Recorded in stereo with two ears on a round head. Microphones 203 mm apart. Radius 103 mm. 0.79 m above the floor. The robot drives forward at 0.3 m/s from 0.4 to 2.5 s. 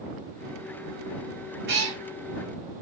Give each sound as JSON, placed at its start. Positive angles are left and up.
{"t": 1.7, "sound": "a cat meowing", "side_deg": -50, "distance_m": 1.2}